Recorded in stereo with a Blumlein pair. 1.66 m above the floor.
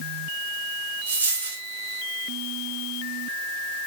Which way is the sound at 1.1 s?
65° right.